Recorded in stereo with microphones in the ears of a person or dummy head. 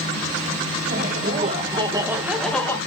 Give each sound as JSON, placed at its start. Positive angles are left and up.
{"t": 0.9, "sound": "laughter", "side_deg": -45, "distance_m": 2.0}